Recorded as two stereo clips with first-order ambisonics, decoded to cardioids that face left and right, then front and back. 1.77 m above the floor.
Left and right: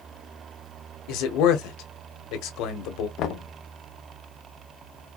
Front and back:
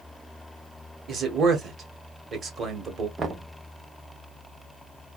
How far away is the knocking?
About 0.7 m.